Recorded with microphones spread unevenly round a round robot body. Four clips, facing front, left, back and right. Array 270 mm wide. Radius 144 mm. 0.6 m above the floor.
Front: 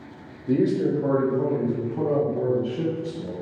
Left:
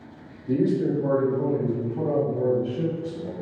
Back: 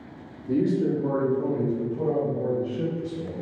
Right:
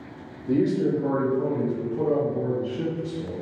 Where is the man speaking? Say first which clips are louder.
Even, front 2 dB; 25° right, 0.9 m; by 3.3 s 30° left, 2.5 m.